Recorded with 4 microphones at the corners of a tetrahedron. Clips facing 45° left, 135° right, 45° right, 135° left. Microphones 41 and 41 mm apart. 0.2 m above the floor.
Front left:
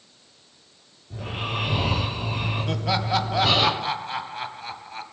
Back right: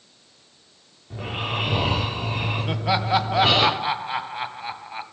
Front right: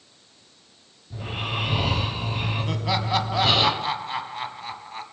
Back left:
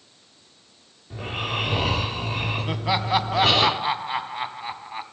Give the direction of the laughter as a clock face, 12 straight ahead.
6 o'clock.